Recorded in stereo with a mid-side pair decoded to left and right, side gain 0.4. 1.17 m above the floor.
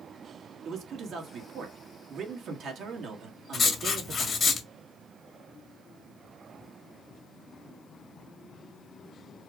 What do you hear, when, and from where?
0.7 s a man speaking: 70° right, 1.6 m
3.5 s writing: 50° left, 1.6 m